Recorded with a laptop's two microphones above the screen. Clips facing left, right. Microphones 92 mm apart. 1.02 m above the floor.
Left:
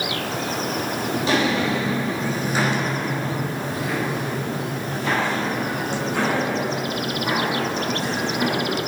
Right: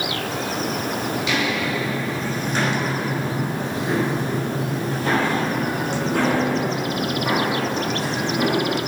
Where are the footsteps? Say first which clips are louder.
Left 5 dB; 35° left (ahead or behind), 1.2 m; by 8.8 s 55° right (ahead or behind), 3.5 m.